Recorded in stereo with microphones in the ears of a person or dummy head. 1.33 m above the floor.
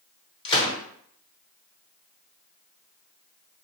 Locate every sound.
0.5 s a gunshot: 25° left (ahead or behind), 1.0 m